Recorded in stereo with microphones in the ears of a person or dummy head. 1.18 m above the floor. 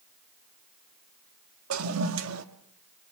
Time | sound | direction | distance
1.7 | a toilet flushing | 80° right | 1.8 m